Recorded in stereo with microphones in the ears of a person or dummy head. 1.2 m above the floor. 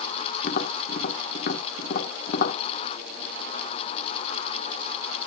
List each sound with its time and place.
0.4 s tapping: 50° left (ahead or behind), 1.4 m